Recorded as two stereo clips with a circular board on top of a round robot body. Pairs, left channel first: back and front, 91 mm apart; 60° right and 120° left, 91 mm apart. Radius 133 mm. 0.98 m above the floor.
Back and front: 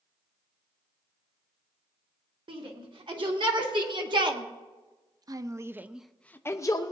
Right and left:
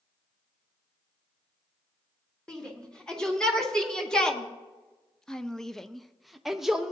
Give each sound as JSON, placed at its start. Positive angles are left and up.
{"t": 2.5, "sound": "a shout", "azimuth_deg": 20, "distance_m": 3.0}